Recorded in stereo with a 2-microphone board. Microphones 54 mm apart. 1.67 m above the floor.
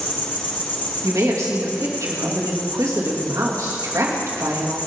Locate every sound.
0.0 s an insect: 35° left (ahead or behind), 1.6 m
1.0 s a woman speaking: 75° right (ahead or behind), 2.5 m